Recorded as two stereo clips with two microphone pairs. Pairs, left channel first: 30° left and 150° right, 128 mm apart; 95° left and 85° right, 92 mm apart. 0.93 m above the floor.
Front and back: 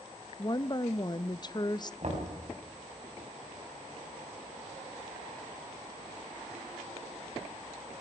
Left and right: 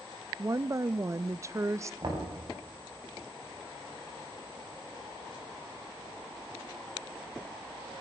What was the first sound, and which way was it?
A woman speaking, 25° right.